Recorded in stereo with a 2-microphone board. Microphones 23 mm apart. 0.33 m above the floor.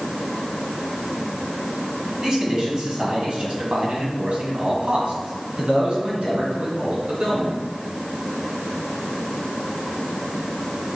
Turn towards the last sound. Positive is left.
turn(degrees=-60)  # may be behind; listen again after turning